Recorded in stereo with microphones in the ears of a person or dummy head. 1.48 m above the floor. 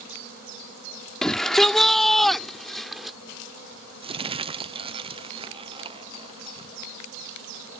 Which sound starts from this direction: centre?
A shout, at 1.2 s.